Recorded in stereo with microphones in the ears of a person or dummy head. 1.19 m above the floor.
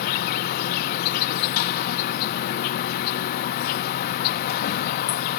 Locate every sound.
0.0 s an insect: 60° left (ahead or behind), 0.7 m